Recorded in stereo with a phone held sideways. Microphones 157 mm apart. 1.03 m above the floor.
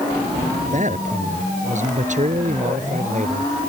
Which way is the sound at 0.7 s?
50° right (ahead or behind).